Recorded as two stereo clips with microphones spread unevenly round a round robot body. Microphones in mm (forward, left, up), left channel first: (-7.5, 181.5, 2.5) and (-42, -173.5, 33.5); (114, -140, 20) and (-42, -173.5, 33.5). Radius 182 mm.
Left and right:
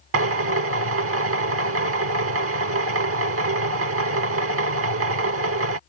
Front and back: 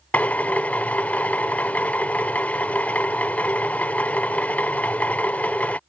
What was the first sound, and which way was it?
A drill, 60° right.